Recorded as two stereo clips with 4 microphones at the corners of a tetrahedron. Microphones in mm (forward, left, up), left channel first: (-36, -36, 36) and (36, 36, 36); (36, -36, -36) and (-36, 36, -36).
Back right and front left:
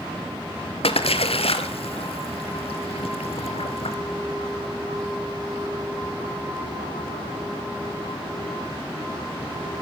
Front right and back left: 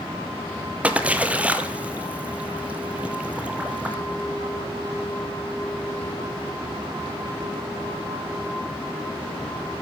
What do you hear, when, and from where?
0.8 s a splash: 150° right, 1.4 m